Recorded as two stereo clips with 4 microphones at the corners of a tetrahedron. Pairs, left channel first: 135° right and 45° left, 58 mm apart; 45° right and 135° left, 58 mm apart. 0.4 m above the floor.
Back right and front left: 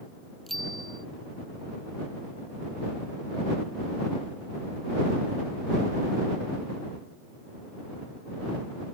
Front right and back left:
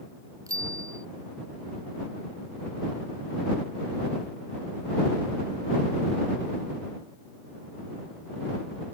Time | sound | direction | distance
0.5 | a bicycle bell | 140° left | ?